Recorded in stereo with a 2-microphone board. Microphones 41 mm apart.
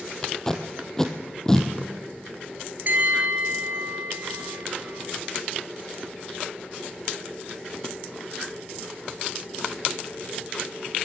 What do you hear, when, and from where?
0.2 s tape being pulled: 15° left (ahead or behind), 2.5 m
2.9 s a bell: 50° right (ahead or behind), 2.0 m